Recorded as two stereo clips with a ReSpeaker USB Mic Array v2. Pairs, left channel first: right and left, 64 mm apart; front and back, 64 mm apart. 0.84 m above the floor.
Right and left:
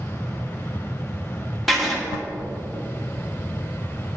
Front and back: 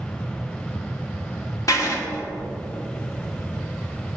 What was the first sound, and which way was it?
Writing, straight ahead.